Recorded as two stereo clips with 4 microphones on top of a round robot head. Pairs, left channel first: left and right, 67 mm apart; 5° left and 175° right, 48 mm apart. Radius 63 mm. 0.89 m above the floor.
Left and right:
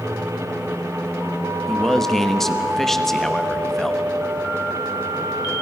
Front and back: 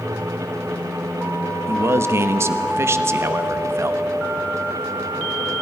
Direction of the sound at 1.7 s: 175° left.